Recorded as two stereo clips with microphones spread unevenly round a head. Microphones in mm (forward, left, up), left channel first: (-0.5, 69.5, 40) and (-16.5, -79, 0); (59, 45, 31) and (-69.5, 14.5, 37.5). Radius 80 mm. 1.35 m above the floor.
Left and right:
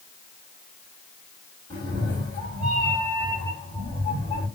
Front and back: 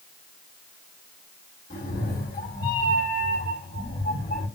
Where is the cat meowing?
25° left, 3 m.